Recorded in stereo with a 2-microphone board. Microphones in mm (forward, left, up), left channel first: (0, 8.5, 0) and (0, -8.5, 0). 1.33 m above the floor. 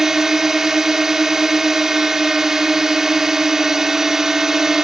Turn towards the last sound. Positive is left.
turn(degrees=-30)  # may be behind; listen again after turning